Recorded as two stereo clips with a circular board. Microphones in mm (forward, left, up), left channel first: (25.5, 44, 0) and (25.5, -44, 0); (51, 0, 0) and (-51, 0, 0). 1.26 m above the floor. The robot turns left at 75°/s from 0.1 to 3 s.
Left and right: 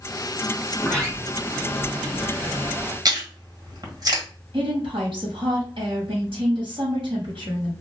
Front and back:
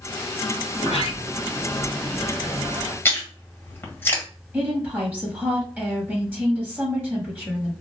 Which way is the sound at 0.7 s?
30° left.